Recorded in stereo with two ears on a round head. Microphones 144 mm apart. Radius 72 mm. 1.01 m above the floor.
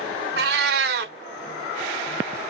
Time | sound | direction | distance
0.4 | a cat meowing | 65° right (ahead or behind) | 0.6 m